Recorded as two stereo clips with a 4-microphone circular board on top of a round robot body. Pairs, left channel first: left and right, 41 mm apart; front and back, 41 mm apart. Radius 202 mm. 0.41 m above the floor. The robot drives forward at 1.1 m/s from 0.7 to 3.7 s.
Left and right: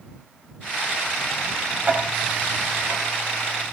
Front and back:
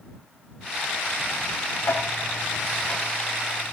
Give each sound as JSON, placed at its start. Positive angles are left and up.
{"t": 1.8, "sound": "ticking", "azimuth_deg": -35, "distance_m": 2.5}